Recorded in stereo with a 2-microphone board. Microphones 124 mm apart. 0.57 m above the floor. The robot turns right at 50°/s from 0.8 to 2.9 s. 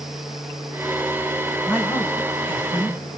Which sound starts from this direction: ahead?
A man speaking, at 1.7 s.